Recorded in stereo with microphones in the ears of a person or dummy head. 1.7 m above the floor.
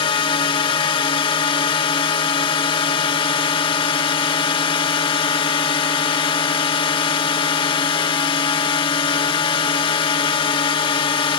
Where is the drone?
25° left (ahead or behind).